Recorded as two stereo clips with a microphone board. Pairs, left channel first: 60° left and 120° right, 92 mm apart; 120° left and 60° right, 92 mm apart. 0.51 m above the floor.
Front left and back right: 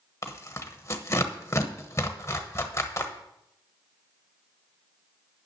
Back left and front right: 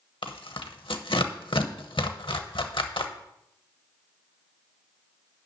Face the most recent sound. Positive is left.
turn(degrees=115)